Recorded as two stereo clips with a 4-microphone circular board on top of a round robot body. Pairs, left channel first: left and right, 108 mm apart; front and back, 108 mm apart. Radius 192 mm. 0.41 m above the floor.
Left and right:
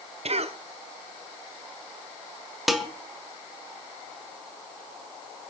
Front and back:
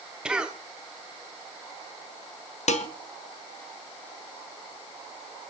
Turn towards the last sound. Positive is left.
turn(degrees=0)